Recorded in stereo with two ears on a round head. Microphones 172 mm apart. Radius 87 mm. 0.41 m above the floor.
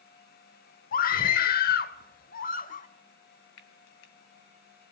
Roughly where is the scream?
Left.